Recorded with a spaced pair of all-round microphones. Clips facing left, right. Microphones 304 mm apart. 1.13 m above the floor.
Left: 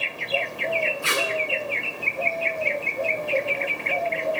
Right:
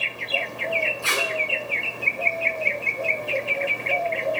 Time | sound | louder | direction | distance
1.0 | tape being pulled | left 1 dB | 20° left (ahead or behind) | 6 m